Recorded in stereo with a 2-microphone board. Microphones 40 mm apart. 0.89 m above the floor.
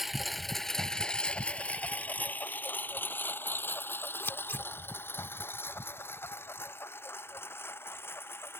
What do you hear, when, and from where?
0.0 s a lawn mower: 5° right (ahead or behind); by 8.6 s 85° left
4.2 s scissors: 75° left (ahead or behind)